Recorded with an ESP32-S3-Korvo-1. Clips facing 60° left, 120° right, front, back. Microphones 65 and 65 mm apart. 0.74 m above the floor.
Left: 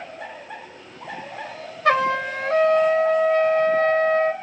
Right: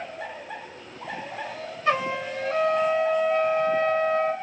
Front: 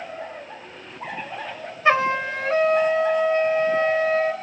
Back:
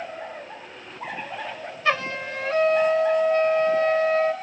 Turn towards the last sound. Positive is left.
turn(degrees=65)